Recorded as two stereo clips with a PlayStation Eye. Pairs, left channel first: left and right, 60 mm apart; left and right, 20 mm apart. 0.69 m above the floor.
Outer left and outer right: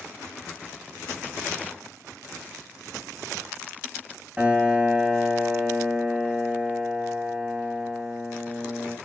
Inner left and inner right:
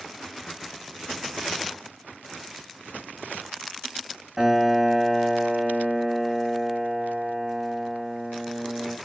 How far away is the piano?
About 2.5 m.